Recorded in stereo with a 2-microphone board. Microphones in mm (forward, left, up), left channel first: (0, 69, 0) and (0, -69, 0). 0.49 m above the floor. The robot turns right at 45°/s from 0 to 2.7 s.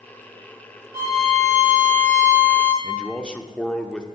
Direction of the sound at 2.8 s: 5° left (ahead or behind).